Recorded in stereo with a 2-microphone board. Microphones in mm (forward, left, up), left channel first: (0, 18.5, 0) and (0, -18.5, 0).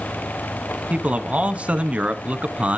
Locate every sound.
0.9 s a man speaking: 40° right (ahead or behind), 1.4 m